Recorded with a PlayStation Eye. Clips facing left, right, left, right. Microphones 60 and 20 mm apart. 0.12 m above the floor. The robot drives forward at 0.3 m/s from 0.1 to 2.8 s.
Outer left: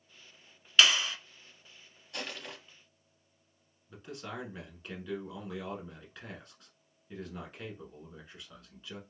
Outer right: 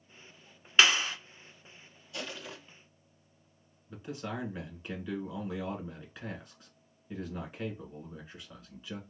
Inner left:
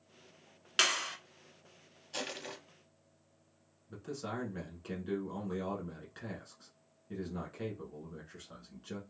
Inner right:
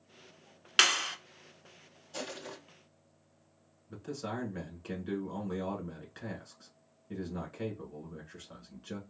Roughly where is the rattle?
I don't hear a rattle.